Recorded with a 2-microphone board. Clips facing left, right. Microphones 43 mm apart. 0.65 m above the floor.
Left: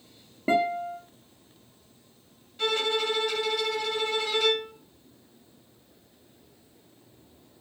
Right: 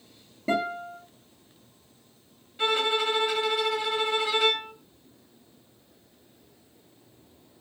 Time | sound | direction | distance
0.5 | a guitar | 30° left (ahead or behind) | 0.9 m
2.6 | a violin | 20° right (ahead or behind) | 0.8 m